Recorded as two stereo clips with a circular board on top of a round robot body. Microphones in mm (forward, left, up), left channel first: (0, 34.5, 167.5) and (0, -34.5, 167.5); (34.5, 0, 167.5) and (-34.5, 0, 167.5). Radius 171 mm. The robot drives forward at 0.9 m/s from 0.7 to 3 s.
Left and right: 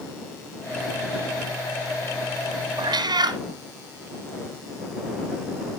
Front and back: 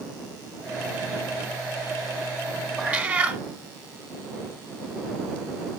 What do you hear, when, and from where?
2.8 s a cat meowing: 90° right, 0.6 m; by 3.4 s 110° right, 0.6 m